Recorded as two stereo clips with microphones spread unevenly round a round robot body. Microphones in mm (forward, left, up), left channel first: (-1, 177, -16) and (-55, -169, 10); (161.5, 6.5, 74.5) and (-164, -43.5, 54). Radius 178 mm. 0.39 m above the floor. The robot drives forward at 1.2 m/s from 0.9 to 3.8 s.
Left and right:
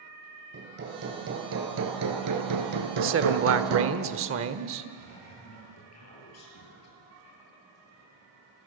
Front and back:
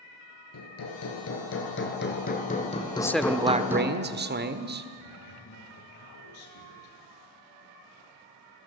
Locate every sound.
0.5 s hammering: 35° right, 4.5 m; by 4.0 s 90° right, 2.5 m
3.0 s a man speaking: 65° right, 1.3 m; by 4.9 s 135° right, 1.5 m
5.0 s a man speaking: 30° left, 8 m